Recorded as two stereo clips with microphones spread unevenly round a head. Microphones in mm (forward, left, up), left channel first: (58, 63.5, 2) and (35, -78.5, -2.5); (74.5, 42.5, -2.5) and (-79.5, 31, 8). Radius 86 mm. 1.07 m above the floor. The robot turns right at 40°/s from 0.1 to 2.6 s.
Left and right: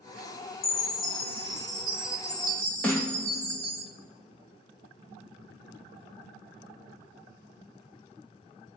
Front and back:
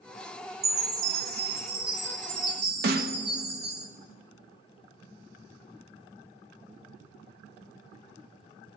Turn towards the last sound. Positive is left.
turn(degrees=165)